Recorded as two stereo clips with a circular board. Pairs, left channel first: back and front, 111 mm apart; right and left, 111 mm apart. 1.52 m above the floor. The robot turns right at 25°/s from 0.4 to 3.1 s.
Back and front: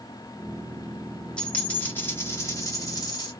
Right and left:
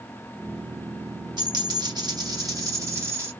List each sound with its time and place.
1.4 s a dropped coin: 100° left, 1.7 m; by 3.3 s 145° left, 1.7 m